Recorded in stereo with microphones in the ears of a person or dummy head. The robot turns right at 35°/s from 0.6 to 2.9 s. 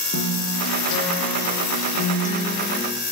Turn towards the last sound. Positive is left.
turn(degrees=170)